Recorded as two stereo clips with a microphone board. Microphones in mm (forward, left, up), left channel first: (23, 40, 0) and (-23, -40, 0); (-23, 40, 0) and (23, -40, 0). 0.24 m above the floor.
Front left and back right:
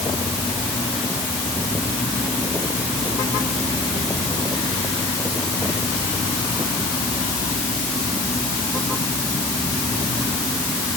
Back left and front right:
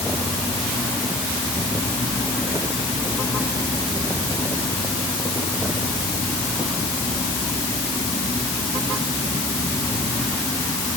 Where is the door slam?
No door slam in this recording.